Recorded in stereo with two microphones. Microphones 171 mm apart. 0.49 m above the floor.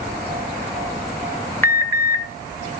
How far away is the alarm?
About 1.8 m.